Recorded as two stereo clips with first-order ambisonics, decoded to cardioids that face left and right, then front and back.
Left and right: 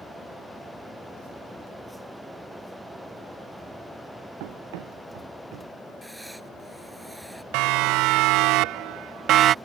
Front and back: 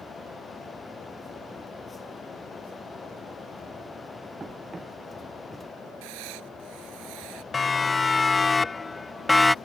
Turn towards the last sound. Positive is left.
turn(degrees=-80)